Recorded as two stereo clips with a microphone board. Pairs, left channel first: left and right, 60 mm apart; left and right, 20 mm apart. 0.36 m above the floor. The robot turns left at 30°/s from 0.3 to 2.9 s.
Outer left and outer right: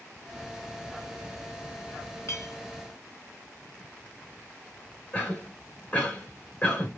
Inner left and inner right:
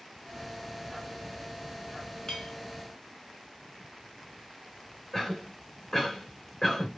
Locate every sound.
2.3 s a clink: 55° left (ahead or behind), 1.3 m; by 2.5 s 60° left (ahead or behind), 1.3 m
5.1 s a cough: 25° left (ahead or behind), 1.8 m